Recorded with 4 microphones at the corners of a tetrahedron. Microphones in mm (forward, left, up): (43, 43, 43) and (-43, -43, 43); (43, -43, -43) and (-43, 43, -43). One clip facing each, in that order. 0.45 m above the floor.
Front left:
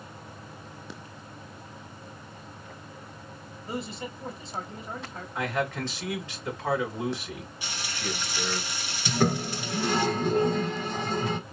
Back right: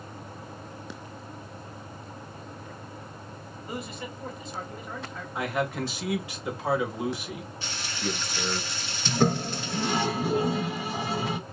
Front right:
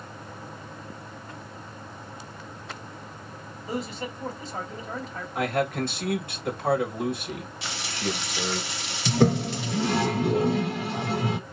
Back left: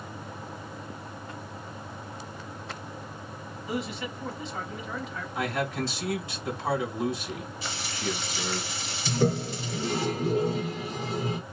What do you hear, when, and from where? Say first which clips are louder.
3.7 s a man speaking: front left 2 dB, front right 1 dB; 5° right, 1.8 m
5.3 s a man speaking: back right 1 dB, front right 4 dB; 60° right, 1.5 m
7.6 s frying: back right 2 dB, front right 3 dB; 35° right, 1.4 m
9.1 s a toilet flushing: back right 1 dB, front right 4 dB; 55° right, 0.6 m